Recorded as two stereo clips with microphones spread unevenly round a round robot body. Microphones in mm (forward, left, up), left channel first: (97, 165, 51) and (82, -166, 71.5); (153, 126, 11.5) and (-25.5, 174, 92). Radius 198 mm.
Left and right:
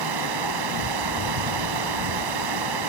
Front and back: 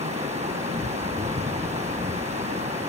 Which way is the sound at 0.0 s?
125° right.